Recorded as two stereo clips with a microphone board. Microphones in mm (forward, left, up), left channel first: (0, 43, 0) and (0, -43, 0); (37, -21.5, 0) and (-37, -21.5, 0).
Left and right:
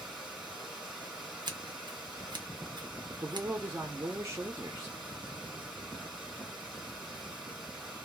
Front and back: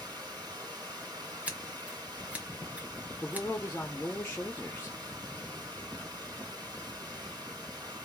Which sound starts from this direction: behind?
Running water, at 0.0 s.